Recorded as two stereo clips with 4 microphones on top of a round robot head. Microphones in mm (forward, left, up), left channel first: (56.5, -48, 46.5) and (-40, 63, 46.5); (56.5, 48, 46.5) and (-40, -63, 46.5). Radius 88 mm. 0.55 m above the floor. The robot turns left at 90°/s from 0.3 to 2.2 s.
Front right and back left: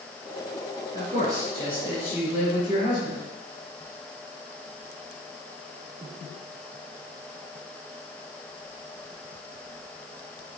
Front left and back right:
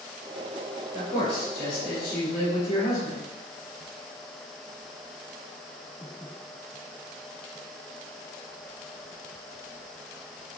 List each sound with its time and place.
0.9 s a man speaking: 125° left, 3.5 m; by 3.2 s 10° left, 3.5 m